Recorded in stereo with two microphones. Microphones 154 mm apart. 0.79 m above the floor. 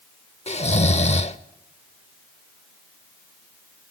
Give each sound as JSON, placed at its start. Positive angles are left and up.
{"t": 0.5, "sound": "snoring", "side_deg": 45, "distance_m": 0.7}